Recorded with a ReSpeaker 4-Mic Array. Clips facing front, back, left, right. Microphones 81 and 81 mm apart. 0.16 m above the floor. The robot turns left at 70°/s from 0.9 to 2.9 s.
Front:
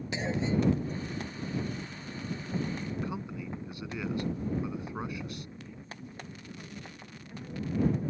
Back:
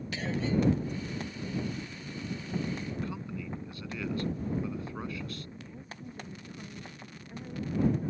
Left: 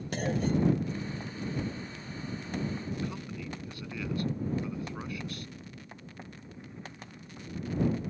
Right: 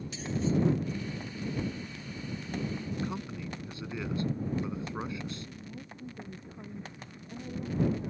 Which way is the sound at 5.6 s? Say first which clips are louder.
Even, right 3 dB; 100° right.